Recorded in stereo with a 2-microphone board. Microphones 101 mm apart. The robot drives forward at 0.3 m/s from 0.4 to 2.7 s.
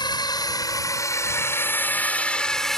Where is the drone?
45° left (ahead or behind); by 2.8 s centre (ahead or behind).